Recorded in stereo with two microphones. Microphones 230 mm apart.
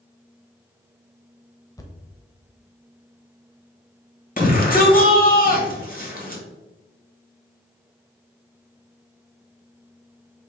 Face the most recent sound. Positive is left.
turn(degrees=40)  # may be behind; listen again after turning